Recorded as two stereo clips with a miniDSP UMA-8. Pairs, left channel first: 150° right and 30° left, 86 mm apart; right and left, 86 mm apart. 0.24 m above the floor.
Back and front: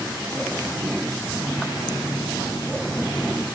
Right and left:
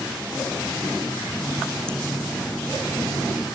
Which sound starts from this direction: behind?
A running tap, at 1.3 s.